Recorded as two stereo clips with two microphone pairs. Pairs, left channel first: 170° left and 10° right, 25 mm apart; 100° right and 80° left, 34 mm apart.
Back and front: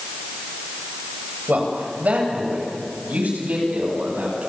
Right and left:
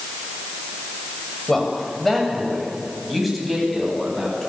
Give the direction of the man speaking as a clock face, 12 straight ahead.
1 o'clock.